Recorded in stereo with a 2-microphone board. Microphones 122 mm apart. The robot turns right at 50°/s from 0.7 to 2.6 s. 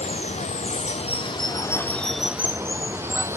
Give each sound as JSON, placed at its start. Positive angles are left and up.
{"t": 0.0, "sound": "running water", "azimuth_deg": 105, "distance_m": 0.9}